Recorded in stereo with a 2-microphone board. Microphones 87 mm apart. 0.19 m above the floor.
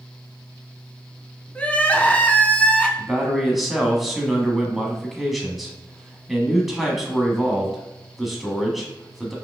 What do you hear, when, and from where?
1.6 s crying: 15° left (ahead or behind), 0.7 m
3.0 s a man speaking: centre (ahead or behind), 1.1 m